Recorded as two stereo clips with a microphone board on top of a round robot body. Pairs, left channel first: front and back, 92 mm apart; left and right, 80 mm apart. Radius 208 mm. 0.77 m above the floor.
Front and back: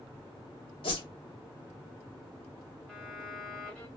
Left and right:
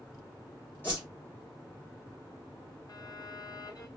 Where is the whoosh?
25° left, 0.8 m.